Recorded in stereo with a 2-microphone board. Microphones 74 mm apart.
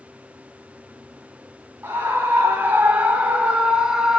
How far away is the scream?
About 1.8 m.